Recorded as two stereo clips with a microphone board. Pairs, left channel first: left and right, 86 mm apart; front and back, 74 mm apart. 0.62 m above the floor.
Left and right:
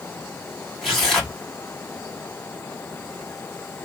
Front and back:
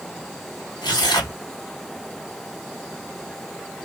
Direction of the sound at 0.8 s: Straight ahead.